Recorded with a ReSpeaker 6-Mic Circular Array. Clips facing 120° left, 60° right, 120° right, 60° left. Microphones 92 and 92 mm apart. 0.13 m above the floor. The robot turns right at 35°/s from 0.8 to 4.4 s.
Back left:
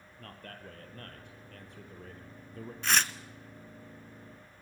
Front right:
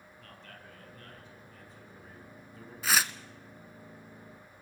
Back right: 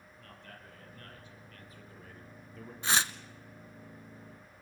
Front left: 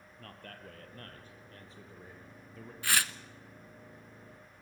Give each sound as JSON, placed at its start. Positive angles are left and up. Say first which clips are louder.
{"t": 0.2, "sound": "a man speaking", "louder": "back left 5 dB, front left 4 dB", "azimuth_deg": 90, "distance_m": 4.0}
{"t": 2.8, "sound": "tearing paper", "louder": "even, back right 2 dB", "azimuth_deg": -140, "distance_m": 0.7}